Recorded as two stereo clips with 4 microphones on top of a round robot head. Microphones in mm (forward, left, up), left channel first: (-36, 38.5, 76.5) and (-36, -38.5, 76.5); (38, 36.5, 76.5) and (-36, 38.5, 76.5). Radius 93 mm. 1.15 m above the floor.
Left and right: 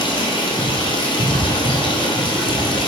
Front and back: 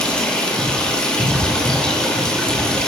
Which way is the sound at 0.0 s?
80° left.